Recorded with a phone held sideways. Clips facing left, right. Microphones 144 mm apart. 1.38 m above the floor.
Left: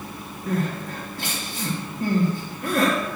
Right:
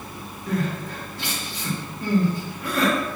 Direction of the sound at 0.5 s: 50° left (ahead or behind).